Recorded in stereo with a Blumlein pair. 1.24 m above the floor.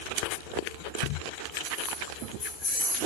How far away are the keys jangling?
About 1.2 m.